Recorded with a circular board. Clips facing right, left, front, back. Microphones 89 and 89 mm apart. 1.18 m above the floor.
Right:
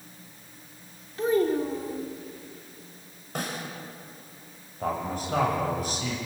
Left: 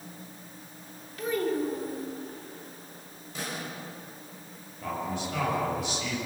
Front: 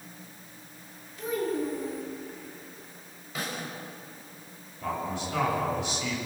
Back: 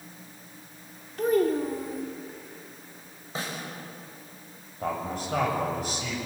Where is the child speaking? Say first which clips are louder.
Right 5 dB, back 6 dB; 145° right, 3 m.